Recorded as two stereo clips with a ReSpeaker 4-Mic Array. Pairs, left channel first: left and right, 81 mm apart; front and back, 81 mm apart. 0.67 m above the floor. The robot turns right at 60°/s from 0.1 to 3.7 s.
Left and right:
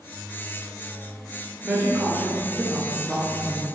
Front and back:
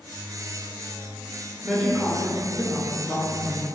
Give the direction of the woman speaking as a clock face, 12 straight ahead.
3 o'clock.